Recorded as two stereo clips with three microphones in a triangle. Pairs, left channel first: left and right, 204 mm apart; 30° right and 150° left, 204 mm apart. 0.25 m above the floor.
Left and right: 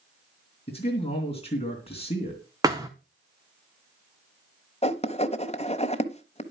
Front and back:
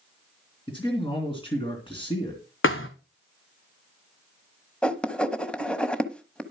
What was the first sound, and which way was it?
A man speaking, 30° left.